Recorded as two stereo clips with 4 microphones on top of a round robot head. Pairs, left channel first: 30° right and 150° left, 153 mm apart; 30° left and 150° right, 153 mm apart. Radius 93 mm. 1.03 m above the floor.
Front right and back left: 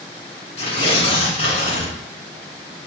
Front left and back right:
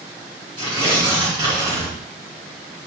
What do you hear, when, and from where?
0.6 s tearing paper: 85° right, 3 m